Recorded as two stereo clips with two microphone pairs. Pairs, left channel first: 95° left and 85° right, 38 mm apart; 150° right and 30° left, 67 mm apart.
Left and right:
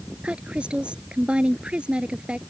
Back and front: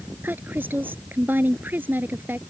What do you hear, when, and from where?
0.2 s a woman speaking: 30° right